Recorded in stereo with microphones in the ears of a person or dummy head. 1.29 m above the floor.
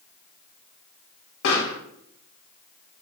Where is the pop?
70° left (ahead or behind), 1.5 m.